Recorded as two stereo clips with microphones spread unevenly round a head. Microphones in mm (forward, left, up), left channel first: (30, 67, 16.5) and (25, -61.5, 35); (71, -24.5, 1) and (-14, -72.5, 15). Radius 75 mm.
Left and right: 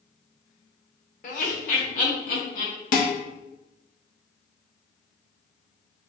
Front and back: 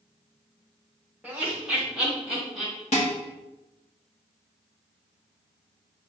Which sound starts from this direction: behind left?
Laughter, at 1.2 s.